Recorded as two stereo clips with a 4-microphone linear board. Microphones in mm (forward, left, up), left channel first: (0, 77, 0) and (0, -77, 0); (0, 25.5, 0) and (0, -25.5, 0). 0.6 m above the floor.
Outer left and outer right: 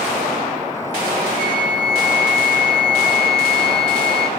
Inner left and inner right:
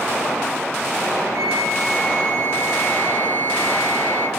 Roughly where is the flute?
Right.